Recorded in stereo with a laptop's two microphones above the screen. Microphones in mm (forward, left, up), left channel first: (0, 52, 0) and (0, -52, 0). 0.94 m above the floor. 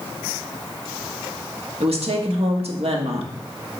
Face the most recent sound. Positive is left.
turn(degrees=-75)  # may be behind; listen again after turning